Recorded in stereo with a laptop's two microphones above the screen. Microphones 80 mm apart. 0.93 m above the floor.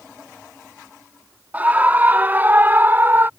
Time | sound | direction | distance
1.5 | a scream | 20° right (ahead or behind) | ?